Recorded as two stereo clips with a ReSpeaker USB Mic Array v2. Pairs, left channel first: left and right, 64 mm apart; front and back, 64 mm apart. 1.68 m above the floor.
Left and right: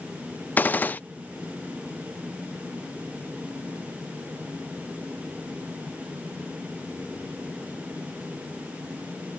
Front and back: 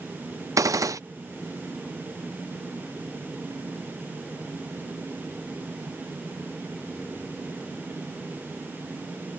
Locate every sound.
0.6 s a gunshot: 155° left